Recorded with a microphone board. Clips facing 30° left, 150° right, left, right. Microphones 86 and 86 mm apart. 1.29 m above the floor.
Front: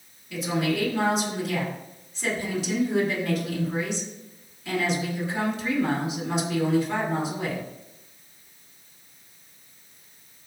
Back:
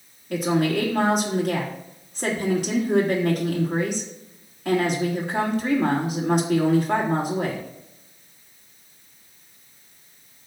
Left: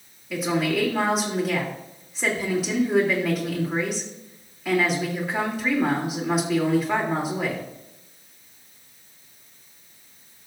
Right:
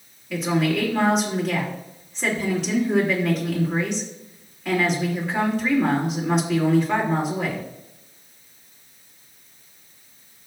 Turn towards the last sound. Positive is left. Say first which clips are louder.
# back 5 dB, right 1 dB
turn(degrees=175)